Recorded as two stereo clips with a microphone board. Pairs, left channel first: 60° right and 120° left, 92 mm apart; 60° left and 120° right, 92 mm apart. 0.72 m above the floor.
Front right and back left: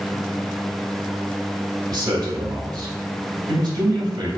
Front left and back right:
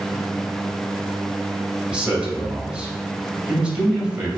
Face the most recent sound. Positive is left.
turn(degrees=160)